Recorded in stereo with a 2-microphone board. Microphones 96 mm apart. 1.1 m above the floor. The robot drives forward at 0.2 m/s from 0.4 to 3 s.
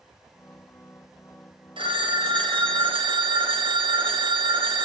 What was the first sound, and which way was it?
A phone ringing, 55° right (ahead or behind).